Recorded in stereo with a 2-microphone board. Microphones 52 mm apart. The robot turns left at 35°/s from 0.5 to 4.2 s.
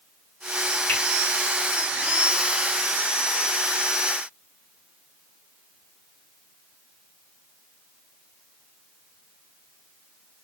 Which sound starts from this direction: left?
A finger snap, at 0.9 s.